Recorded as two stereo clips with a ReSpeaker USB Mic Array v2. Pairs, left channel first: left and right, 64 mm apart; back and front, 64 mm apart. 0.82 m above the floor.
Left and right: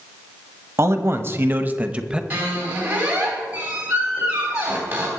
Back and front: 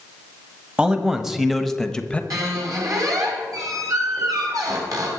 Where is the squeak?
25° right, 3.5 m.